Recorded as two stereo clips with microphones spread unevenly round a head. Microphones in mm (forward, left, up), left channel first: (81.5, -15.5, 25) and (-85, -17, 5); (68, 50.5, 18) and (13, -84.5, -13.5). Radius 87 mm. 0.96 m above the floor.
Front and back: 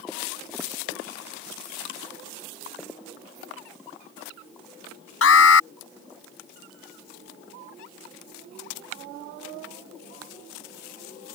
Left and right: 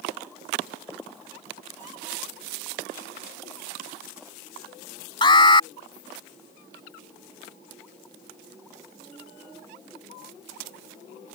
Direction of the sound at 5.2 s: 10° left.